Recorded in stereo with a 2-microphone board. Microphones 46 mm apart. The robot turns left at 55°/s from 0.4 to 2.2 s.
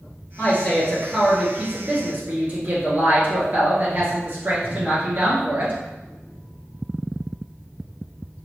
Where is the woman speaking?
40° left, 1.8 m; by 5.7 s 60° right, 1.8 m.